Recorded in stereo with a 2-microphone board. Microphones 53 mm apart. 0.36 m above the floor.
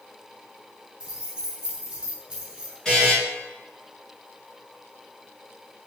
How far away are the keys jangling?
About 1.3 m.